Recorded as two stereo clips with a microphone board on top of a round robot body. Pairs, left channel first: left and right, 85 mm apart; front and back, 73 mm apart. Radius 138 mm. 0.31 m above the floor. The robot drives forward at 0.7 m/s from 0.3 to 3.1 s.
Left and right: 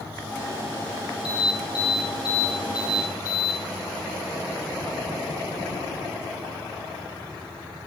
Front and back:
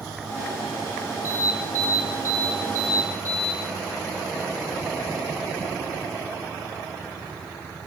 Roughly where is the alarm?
Behind left.